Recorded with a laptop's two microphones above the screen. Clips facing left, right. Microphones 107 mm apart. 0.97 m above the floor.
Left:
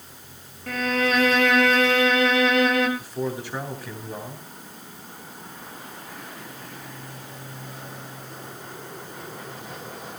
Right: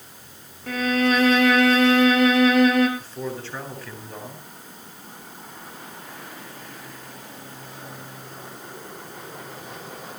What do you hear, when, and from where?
0.7 s a violin: 5° right (ahead or behind), 4.5 m
3.0 s a man speaking: 10° left (ahead or behind), 8 m